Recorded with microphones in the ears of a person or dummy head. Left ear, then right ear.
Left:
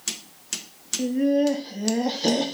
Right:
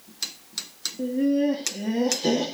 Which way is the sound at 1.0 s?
30° left (ahead or behind).